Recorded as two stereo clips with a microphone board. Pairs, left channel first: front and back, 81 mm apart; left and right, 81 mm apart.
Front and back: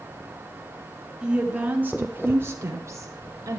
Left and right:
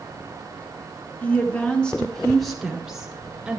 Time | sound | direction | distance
1.2 | a woman speaking | 120° left | 1.5 m